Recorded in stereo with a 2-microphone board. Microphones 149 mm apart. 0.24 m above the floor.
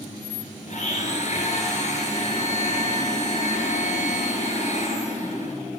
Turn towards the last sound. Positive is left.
turn(degrees=60)  # may be behind; listen again after turning